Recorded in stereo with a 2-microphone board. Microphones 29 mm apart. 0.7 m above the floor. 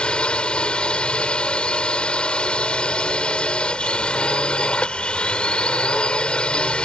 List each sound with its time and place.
0.0 s a drone: 40° left (ahead or behind)